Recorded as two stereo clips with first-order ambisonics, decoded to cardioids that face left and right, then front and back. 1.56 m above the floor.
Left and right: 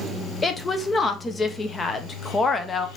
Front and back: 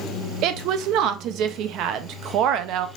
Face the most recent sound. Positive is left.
turn(degrees=160)